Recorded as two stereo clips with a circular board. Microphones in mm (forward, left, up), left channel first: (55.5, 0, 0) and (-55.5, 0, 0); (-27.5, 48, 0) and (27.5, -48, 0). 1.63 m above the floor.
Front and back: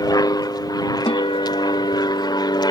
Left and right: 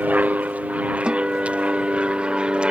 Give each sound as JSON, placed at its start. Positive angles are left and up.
{"t": 0.0, "sound": "an aircraft", "azimuth_deg": 5}
{"t": 1.1, "sound": "a guitar", "azimuth_deg": 20}